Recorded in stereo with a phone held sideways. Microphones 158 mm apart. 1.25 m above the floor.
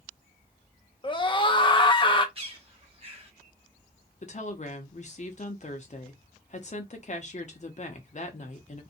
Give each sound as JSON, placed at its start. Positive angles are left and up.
{"t": 1.0, "sound": "a scream", "side_deg": 30, "distance_m": 0.6}
{"t": 2.4, "sound": "a bird", "side_deg": -35, "distance_m": 1.2}
{"t": 4.2, "sound": "a woman speaking", "side_deg": 45, "distance_m": 0.6}